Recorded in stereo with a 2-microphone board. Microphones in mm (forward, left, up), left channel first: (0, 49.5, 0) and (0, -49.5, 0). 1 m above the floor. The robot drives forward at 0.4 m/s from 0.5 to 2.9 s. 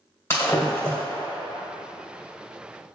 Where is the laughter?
I don't hear laughter.